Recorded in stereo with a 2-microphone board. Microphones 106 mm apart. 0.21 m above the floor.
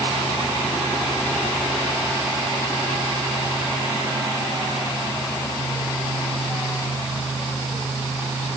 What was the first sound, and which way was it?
Only background noise.